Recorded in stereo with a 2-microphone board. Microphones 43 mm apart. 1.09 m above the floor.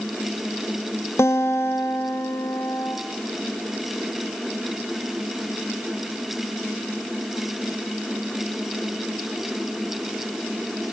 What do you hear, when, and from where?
1.2 s a guitar: 70° left (ahead or behind), 0.8 m